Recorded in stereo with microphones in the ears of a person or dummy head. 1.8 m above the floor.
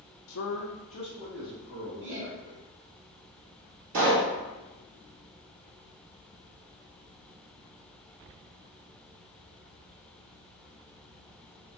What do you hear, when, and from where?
0.3 s a man speaking: 60° left (ahead or behind), 0.6 m; by 2.6 s 5° right (ahead or behind), 1.4 m
2.0 s laughter: 40° right (ahead or behind), 0.7 m
3.9 s a pop: 45° right (ahead or behind), 1.0 m